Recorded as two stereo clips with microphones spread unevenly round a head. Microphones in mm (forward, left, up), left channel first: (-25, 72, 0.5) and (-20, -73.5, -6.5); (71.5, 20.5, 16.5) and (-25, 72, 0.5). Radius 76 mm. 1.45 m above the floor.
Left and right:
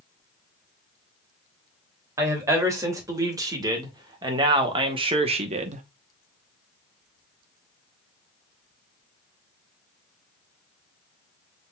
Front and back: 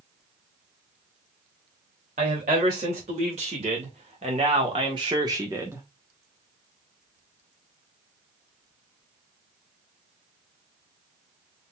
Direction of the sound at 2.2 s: 160° right.